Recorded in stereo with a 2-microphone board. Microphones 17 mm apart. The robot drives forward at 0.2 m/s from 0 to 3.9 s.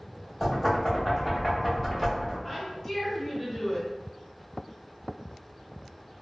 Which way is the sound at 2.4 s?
20° left (ahead or behind).